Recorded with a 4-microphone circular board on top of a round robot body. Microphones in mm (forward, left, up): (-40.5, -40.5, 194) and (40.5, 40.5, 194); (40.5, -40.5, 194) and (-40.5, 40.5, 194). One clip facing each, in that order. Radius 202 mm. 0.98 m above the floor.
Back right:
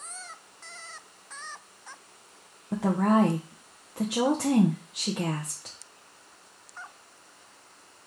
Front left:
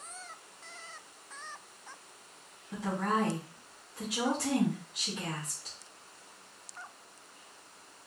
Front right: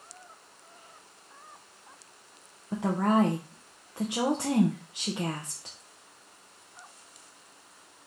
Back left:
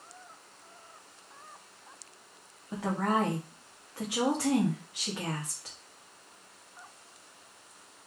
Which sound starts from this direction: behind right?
A woman speaking, at 2.7 s.